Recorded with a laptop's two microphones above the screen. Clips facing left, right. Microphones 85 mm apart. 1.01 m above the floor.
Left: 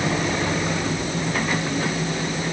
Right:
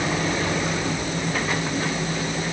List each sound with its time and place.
Only background noise.